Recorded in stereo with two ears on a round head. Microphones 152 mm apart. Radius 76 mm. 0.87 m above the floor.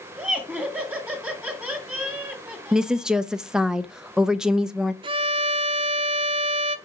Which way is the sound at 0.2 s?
5° right (ahead or behind).